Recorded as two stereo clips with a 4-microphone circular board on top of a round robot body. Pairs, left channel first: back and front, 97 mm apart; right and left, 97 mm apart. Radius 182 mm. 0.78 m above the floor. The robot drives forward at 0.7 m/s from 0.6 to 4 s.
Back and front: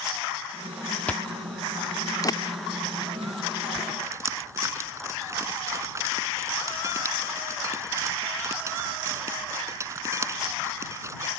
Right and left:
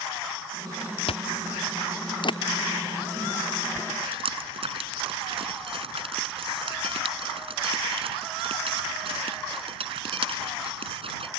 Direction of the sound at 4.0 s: 60° left.